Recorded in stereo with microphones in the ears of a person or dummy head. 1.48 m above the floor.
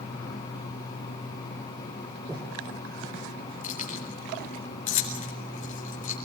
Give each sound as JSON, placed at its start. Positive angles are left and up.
{"t": 2.3, "sound": "breathing", "side_deg": -15, "distance_m": 4.5}
{"t": 3.6, "sound": "keys jangling", "side_deg": 40, "distance_m": 4.0}